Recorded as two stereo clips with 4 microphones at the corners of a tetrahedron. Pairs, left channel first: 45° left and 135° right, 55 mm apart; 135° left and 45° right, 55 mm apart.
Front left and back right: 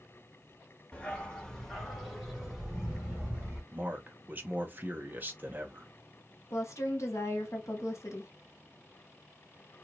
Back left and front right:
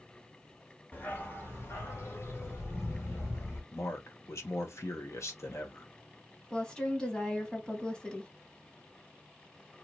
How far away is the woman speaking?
About 1.4 m.